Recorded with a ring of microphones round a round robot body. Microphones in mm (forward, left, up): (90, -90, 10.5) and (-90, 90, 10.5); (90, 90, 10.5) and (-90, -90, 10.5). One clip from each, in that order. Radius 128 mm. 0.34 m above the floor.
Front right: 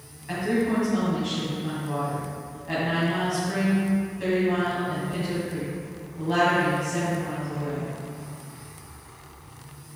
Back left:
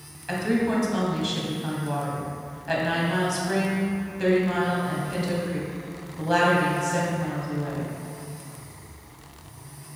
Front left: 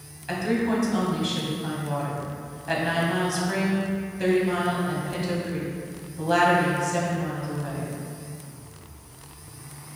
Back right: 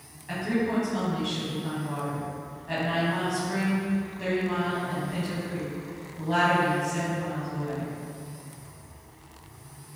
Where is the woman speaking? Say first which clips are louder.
Even, front left 3 dB; 90° left, 1.8 m.